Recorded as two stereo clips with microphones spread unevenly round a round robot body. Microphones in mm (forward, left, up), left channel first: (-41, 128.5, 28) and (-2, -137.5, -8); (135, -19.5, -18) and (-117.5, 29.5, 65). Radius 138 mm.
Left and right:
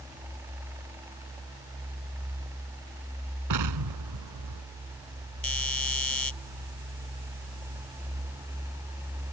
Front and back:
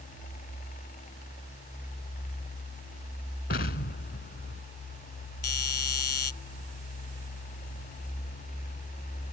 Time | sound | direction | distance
3.5 | an explosion | 65° right | ?
5.4 | a doorbell | 15° left | ?